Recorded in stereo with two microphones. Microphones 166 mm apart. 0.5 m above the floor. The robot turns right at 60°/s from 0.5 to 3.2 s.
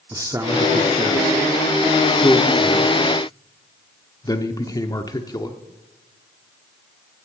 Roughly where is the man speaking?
Centre.